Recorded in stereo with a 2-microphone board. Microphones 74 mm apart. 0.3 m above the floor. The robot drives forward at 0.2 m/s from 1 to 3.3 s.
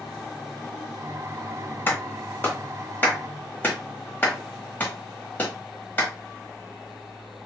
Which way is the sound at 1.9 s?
30° left (ahead or behind).